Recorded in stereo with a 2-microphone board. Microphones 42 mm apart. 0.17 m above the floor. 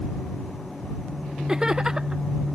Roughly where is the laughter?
Centre.